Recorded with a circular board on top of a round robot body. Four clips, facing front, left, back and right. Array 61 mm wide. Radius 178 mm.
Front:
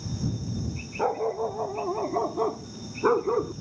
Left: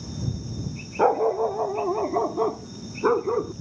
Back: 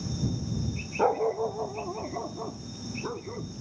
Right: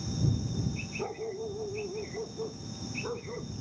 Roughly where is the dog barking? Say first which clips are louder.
Left 17 dB, back 1 dB; left.